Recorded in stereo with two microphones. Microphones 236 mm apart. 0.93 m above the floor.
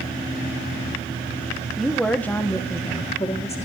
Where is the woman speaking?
Centre (ahead or behind), 1.5 m; by 3.7 s 30° left (ahead or behind), 2 m.